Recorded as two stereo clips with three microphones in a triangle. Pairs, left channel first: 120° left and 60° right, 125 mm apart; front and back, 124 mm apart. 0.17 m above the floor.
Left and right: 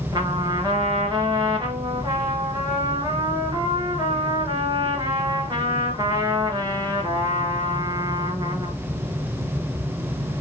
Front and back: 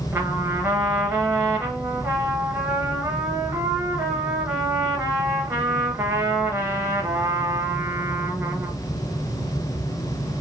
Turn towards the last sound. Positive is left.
turn(degrees=-110)